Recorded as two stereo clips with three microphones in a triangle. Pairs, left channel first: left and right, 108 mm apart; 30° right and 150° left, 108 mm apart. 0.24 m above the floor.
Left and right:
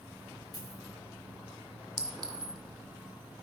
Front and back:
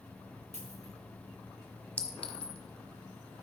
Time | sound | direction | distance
0.5 | a dropped coin | 145° left | 5 m
2.0 | a clink | 105° right | 1.2 m